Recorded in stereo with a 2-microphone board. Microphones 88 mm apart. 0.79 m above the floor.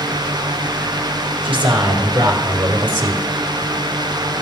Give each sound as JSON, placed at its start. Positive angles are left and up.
{"t": 1.4, "sound": "a man speaking", "side_deg": -75, "distance_m": 3.0}